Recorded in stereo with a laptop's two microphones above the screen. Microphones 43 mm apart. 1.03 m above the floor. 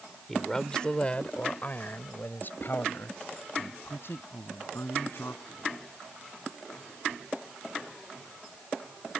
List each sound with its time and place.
0.3 s a man speaking: 5° left (ahead or behind); by 5.7 s 70° left (ahead or behind)